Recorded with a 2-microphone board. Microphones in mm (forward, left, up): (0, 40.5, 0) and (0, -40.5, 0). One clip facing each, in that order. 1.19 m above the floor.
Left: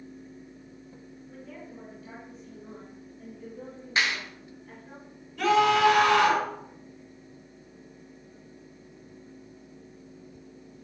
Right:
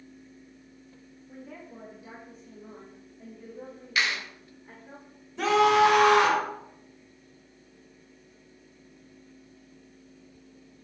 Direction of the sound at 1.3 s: 20° right (ahead or behind).